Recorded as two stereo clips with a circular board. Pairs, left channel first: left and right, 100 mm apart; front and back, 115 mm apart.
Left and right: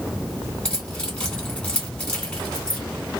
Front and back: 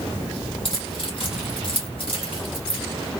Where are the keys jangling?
15° left, 1.3 m.